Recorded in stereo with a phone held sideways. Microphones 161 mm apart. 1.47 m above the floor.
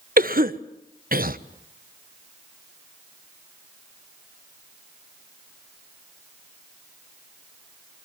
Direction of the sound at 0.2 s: 65° right (ahead or behind).